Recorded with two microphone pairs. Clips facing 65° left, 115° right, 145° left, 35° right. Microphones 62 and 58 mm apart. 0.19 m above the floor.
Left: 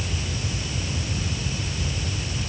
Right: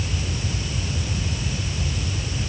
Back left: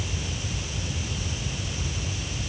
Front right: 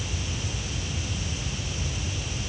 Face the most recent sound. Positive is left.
No sound to turn to.